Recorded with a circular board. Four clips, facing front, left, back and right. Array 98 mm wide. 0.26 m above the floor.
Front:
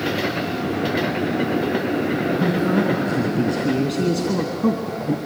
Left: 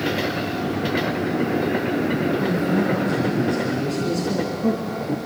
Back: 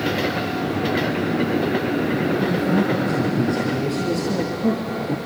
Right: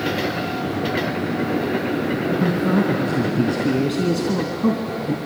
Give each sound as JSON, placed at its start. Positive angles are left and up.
{"t": 2.3, "sound": "a man speaking", "azimuth_deg": -65, "distance_m": 4.0}